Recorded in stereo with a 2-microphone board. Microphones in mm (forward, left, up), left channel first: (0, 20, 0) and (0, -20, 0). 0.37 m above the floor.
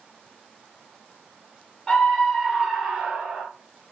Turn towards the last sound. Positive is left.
turn(degrees=-30)  # may be behind; listen again after turning